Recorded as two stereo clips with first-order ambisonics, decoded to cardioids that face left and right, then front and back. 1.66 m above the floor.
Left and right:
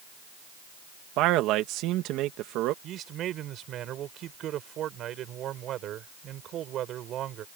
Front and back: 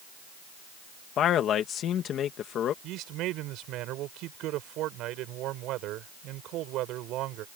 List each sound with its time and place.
1.2 s a man speaking: 55° right
2.8 s a man speaking: 140° right